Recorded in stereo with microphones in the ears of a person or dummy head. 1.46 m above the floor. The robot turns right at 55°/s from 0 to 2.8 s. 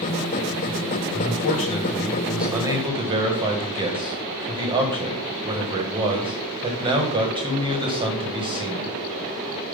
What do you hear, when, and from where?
1.1 s a man speaking: 110° left, 1.5 m; by 8.9 s 155° right, 1.5 m